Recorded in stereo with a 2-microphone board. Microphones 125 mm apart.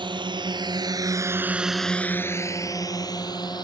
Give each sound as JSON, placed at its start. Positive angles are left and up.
{"t": 0.0, "sound": "a drone", "side_deg": -40}